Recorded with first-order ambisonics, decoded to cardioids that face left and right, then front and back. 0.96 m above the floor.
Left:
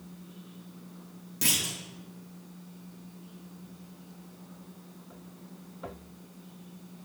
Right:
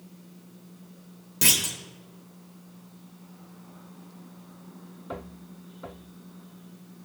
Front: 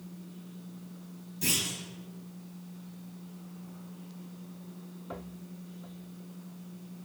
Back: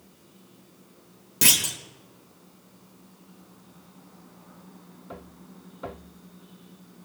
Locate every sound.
1.4 s a clunk: 160° right, 0.9 m